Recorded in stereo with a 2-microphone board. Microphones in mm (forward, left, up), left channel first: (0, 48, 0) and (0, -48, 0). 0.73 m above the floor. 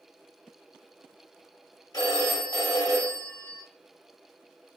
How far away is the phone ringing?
About 1.7 m.